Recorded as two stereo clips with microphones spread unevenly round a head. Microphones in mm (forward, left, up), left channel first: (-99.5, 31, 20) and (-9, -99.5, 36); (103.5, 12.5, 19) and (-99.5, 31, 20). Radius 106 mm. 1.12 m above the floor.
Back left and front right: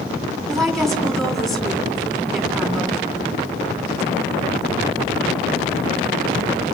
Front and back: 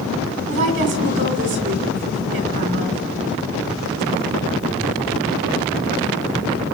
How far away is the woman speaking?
About 3 m.